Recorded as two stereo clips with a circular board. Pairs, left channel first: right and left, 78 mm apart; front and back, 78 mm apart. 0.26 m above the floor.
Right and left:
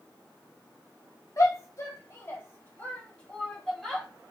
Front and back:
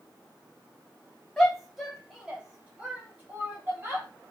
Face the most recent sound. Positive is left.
turn(degrees=175)